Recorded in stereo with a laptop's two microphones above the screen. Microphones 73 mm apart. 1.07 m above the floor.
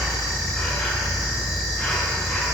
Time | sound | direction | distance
0.0 | an insect | 15° left (ahead or behind) | 2.5 m